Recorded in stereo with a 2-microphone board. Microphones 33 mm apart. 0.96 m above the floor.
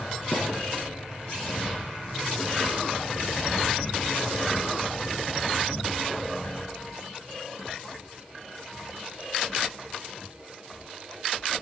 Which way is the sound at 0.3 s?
80° left.